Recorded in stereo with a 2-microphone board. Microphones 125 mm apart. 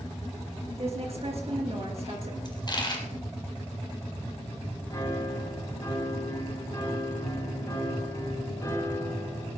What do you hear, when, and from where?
0.8 s a woman speaking: 55° right (ahead or behind), 3 m
2.5 s a dropped coin: 35° left (ahead or behind), 2 m
4.9 s a piano: 30° left (ahead or behind), 3.5 m